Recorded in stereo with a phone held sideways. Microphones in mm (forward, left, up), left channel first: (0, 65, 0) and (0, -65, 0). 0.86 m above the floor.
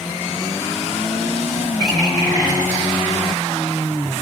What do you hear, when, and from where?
1.8 s a bird: 30° left (ahead or behind), 6.5 m